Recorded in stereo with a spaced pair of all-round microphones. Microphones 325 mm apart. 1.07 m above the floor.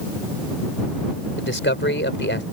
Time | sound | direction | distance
1.4 | a man speaking | 35° left (ahead or behind) | ?